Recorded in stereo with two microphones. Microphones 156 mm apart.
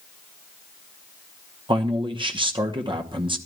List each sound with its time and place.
1.7 s a man speaking: 30° right (ahead or behind), 1.0 m